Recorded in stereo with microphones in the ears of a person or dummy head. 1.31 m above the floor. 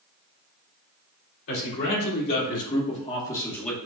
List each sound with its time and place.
1.5 s a man speaking: 75° left (ahead or behind), 2.5 m; by 3.8 s 5° left (ahead or behind), 1.4 m